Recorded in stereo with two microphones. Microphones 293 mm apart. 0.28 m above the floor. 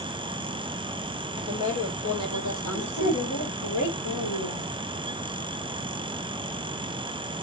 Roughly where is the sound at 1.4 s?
Left.